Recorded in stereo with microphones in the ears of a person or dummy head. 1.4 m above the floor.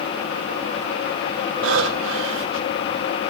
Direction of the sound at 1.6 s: 75° right (ahead or behind).